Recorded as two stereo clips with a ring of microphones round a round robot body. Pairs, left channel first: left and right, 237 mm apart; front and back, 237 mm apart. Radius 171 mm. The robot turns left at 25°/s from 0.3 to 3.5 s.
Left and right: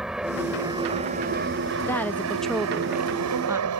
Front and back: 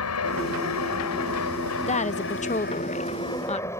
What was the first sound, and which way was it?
An aircraft, straight ahead.